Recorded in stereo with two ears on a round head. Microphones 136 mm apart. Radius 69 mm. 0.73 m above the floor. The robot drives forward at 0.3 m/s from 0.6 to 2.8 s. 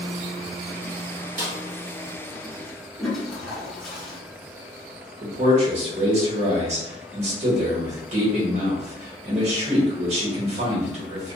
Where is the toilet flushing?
Centre (ahead or behind), 1.1 m.